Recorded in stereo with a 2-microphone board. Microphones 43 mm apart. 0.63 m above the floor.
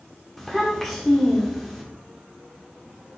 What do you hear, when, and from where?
0.4 s a child speaking: 5° left (ahead or behind), 0.8 m